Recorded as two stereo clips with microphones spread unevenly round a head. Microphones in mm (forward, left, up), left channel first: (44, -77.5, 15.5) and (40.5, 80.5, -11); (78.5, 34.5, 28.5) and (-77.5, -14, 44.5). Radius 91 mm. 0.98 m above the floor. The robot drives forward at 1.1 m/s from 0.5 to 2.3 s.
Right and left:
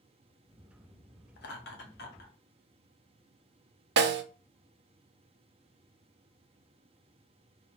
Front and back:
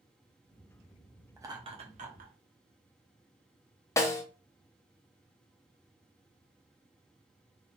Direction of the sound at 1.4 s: 85° right.